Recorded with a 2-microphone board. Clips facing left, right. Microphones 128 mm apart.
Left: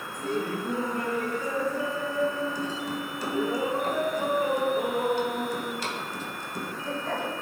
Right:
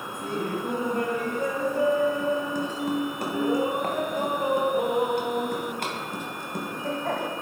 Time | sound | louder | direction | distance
0.1 | laughter | even | 55° right (ahead or behind) | 2.5 m